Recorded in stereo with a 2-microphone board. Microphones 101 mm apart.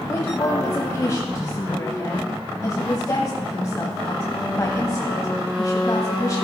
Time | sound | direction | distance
0.1 | a woman speaking | 35° left (ahead or behind) | 1.2 m